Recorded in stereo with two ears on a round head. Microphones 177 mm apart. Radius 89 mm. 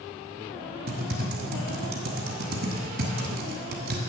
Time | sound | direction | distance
0.9 | typing on a keyboard | 50° right (ahead or behind) | 1.3 m